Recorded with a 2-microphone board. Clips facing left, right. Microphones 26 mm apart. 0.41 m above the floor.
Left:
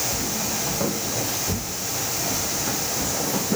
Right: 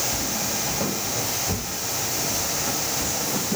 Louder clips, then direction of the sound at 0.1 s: Even; 15° left (ahead or behind).